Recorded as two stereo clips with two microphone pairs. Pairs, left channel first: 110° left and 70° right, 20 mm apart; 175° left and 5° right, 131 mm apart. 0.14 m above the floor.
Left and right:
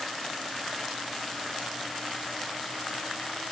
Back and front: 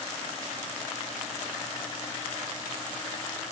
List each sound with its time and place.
Only background noise.